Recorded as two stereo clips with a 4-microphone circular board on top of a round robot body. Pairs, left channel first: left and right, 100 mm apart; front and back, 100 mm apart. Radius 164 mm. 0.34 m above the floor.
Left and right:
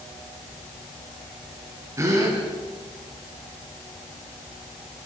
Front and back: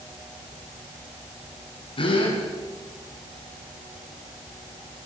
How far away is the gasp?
About 5 m.